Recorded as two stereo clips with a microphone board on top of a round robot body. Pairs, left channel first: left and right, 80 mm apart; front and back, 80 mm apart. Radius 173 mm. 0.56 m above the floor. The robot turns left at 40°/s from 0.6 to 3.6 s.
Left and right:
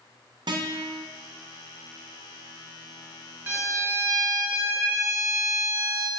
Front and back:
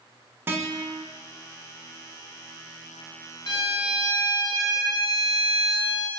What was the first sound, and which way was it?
A guitar, 115° right.